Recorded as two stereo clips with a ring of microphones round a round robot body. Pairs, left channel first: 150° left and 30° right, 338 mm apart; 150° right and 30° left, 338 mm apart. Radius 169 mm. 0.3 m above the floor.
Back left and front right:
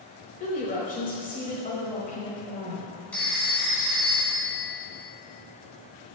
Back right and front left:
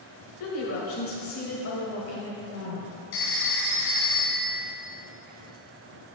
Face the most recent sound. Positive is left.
turn(degrees=-125)